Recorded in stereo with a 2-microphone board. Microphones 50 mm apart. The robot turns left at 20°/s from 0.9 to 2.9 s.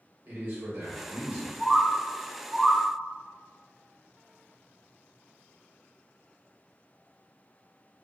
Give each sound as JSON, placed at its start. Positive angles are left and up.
{"t": 0.2, "sound": "a man speaking", "side_deg": -45, "distance_m": 1.5}
{"t": 1.6, "sound": "a bird", "side_deg": 0, "distance_m": 1.1}